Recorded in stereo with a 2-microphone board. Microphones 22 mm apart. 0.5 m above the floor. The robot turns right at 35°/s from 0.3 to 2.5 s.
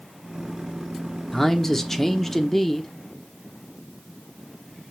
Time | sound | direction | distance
1.3 | a man speaking | 20° left (ahead or behind) | 1.1 m